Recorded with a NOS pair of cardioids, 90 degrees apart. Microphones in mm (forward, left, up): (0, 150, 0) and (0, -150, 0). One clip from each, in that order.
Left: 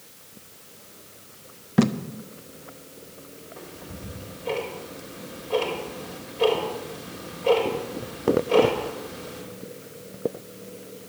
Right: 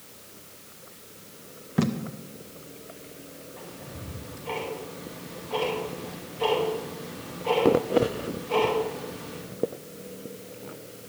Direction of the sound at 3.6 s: 40° left.